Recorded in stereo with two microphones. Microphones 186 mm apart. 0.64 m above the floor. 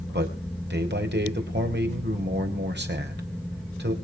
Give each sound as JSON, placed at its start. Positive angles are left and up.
{"t": 0.1, "sound": "a man speaking", "side_deg": -65, "distance_m": 4.0}